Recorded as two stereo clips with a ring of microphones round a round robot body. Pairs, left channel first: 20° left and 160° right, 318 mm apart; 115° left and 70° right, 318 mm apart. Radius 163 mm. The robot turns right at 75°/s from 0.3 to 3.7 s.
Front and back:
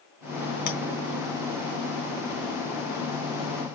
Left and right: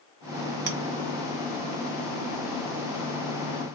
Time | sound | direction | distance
0.7 | a clink | 40° right | 0.8 m